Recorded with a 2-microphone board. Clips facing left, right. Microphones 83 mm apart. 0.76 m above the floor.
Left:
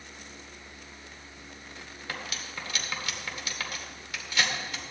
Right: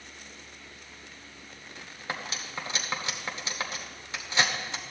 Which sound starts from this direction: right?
Cutlery clinking, at 2.1 s.